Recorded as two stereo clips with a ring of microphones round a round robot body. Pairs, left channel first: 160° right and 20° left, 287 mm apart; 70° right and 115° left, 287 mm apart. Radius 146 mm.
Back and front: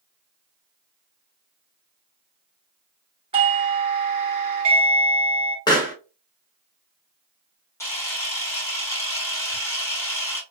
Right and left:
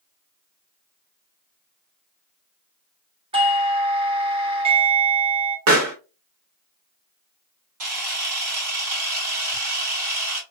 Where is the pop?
125° left, 1.5 m.